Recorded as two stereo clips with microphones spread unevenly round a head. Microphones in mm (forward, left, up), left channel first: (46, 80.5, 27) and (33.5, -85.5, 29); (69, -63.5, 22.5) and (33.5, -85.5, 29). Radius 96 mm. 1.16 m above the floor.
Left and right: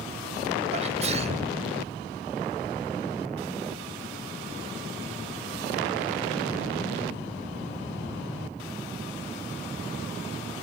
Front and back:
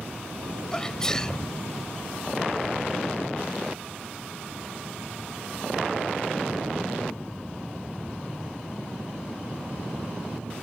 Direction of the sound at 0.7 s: 45° right.